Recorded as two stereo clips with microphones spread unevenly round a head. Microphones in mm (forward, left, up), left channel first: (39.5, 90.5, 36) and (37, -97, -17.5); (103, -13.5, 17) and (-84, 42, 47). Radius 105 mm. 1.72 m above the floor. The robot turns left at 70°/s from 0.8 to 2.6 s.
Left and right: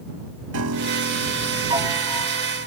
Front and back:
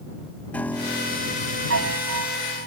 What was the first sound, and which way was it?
A piano, 100° right.